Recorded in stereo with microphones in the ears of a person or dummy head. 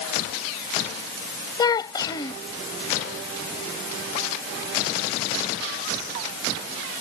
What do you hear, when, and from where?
1.6 s a child speaking: 25° left (ahead or behind)